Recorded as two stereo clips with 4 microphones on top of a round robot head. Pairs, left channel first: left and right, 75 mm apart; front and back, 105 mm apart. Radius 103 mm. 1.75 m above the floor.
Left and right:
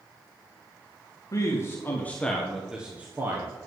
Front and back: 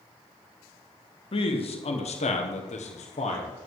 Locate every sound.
1.3 s a man speaking: 35° left, 2.5 m; by 3.5 s 30° right, 1.9 m